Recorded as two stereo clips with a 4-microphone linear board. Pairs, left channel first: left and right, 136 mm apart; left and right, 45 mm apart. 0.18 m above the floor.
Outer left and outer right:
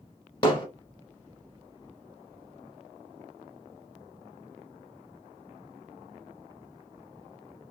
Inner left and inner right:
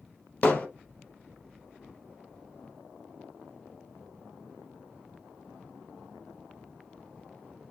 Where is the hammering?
40° left (ahead or behind), 1.3 m.